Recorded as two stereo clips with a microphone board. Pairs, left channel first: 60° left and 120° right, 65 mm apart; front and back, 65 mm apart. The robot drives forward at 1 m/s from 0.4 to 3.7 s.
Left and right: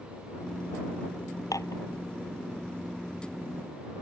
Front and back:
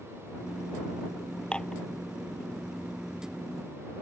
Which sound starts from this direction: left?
Dishes clattering, at 1.5 s.